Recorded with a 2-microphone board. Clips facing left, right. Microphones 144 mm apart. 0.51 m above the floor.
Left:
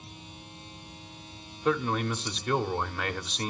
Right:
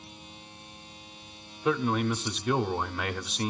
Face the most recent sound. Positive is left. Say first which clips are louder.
# right 1 dB
turn(degrees=-5)  # may be behind; listen again after turning